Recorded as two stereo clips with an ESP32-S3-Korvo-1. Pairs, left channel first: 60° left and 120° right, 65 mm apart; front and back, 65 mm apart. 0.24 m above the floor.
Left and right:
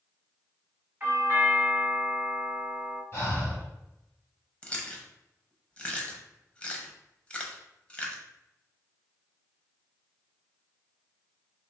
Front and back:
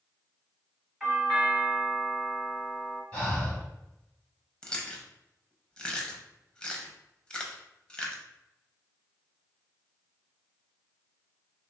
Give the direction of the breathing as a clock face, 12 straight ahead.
10 o'clock.